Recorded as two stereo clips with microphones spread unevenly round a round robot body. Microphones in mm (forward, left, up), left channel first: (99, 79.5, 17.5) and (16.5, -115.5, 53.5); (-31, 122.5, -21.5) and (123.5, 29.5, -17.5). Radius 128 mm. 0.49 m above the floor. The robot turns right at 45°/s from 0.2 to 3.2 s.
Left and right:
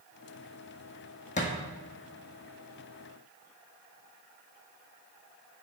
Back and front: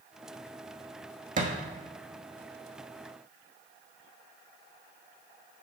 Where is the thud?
10° left, 1.2 m; by 1.5 s 15° left, 1.2 m.